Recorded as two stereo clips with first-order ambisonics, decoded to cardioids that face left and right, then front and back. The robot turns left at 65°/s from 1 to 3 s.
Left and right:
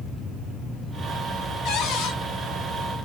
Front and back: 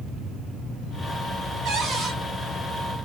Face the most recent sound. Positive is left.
turn(degrees=35)